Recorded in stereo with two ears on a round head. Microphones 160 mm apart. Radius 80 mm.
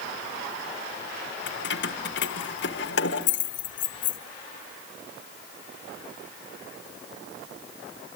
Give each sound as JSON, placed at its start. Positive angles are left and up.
{"t": 1.5, "sound": "keys jangling", "side_deg": 65, "distance_m": 1.5}